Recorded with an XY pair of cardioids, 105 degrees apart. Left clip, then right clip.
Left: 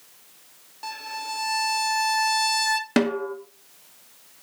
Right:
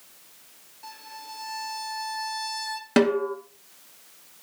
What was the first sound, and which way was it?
A violin, 65° left.